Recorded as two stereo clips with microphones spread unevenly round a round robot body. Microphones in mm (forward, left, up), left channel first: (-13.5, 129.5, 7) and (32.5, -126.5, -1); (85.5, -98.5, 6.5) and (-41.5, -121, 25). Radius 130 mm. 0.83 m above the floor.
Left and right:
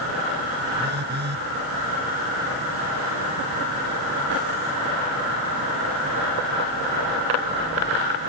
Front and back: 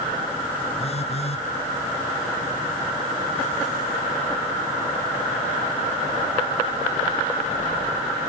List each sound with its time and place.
0.8 s a phone buzzing: 25° right